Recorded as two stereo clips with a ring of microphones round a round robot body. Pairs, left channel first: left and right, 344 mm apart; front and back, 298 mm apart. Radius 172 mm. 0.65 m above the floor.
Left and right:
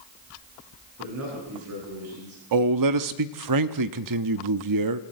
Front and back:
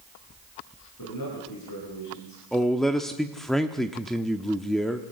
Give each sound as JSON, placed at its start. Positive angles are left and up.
{"t": 1.0, "sound": "a man speaking", "azimuth_deg": -40, "distance_m": 9.5}
{"t": 2.5, "sound": "a man speaking", "azimuth_deg": -90, "distance_m": 0.9}